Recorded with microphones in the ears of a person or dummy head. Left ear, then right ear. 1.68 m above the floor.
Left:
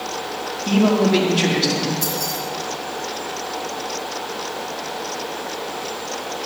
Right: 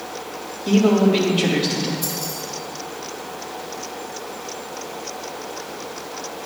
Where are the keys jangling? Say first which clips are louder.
Left 4 dB; 70° left (ahead or behind), 4 m.